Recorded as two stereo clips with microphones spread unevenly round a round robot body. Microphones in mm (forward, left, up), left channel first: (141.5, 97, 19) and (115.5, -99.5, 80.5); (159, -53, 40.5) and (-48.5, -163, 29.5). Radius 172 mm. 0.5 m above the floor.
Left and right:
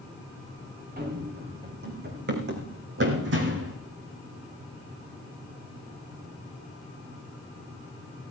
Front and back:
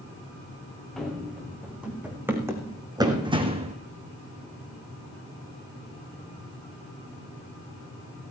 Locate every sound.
1.0 s running footsteps: 60° right, 3.5 m; by 3.8 s 90° right, 2 m